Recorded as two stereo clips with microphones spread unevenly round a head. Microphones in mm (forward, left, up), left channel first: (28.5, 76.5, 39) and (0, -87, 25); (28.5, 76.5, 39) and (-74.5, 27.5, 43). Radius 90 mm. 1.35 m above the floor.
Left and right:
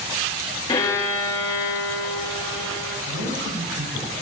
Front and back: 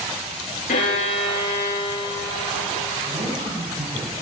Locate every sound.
0.7 s a violin: 15° left, 5 m
3.0 s a man speaking: 110° right, 8 m